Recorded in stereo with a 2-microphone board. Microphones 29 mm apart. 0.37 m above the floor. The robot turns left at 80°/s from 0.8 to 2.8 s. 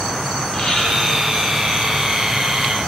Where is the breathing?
30° left (ahead or behind), 5.5 m; by 0.8 s 25° left (ahead or behind), 5.5 m.